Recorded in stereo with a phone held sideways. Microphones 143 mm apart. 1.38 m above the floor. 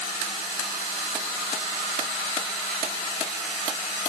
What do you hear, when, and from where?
Only background noise.